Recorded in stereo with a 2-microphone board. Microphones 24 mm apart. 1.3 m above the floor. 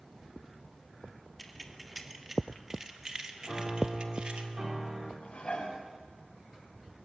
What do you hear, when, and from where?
1.4 s keys jangling: 5° left (ahead or behind), 2.5 m; by 4.4 s 50° right (ahead or behind), 2 m
3.4 s a piano: 25° right (ahead or behind), 4 m
5.2 s dishes clattering: 55° left (ahead or behind), 6.5 m